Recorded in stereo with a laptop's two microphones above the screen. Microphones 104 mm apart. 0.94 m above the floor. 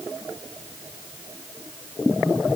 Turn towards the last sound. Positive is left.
No sound to turn to.